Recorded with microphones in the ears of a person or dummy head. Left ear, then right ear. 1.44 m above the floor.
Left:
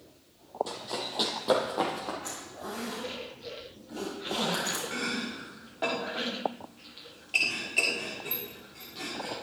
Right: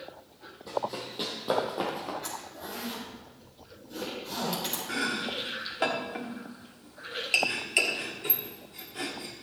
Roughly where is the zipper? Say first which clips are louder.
Even; right.